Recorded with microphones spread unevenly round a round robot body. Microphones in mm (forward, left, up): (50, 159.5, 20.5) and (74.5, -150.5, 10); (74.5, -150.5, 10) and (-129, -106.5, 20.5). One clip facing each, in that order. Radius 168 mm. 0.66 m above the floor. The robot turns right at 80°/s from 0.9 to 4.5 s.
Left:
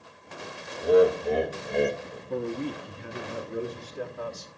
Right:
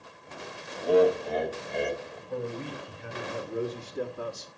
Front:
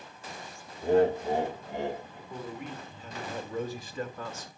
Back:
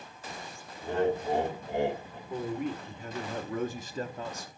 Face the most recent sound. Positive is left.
turn(degrees=-105)